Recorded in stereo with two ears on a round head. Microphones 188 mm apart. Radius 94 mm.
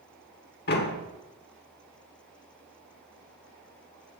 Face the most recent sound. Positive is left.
turn(degrees=50)  # may be behind; listen again after turning